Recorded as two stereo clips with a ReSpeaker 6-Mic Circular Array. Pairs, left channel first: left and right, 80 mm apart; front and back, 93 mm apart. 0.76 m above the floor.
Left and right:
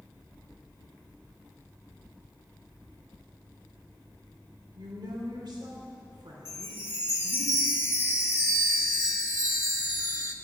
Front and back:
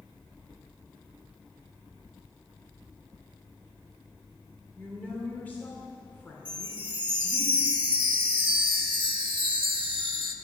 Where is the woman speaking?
70° right, 2.5 m.